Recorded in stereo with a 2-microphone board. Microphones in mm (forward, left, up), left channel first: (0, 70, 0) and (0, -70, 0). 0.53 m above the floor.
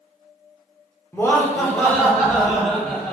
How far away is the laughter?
About 1.0 m.